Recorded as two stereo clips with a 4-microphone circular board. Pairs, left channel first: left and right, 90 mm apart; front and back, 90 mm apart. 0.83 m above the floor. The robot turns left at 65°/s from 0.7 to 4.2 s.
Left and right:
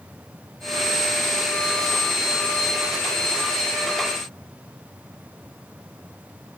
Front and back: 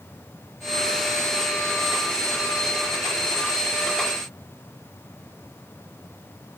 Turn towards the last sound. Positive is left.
No sound to turn to.